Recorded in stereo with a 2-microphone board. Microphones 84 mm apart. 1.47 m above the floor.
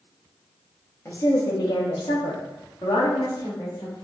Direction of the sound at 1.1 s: 30° left (ahead or behind).